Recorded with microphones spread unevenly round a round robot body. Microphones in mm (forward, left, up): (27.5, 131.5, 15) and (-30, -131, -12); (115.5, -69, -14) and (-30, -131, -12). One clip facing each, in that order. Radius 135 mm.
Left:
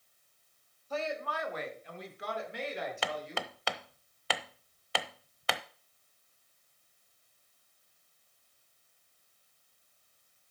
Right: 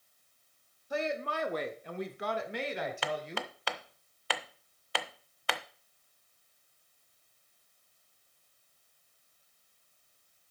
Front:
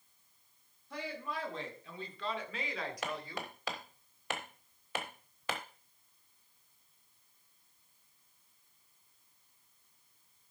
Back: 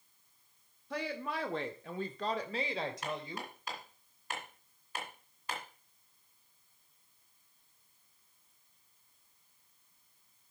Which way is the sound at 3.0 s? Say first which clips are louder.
Right 1 dB, even; 75° left.